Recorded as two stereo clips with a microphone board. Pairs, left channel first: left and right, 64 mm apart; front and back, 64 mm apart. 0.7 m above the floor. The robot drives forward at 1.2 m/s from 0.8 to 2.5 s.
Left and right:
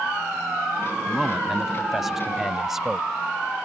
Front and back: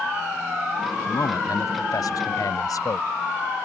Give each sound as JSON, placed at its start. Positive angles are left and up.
{"t": 1.1, "sound": "a man speaking", "azimuth_deg": -5}